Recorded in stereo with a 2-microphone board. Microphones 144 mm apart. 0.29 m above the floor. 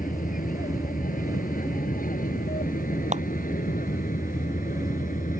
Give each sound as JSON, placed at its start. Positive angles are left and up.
{"t": 0.0, "sound": "an aircraft", "side_deg": 70}
{"t": 3.1, "sound": "a clap", "side_deg": -55}